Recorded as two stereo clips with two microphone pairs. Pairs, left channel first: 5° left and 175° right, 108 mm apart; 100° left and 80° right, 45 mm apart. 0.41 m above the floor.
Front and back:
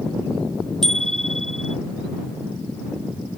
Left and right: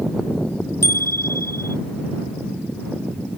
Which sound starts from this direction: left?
A bicycle bell, at 0.8 s.